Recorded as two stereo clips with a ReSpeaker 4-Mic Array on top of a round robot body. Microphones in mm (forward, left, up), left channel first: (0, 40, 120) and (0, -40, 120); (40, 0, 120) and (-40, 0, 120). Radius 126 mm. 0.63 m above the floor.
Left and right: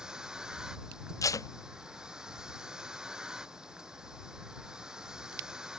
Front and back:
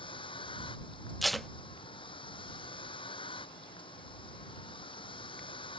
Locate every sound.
0.0 s a vehicle: 10° right
1.2 s tape being pulled: 90° left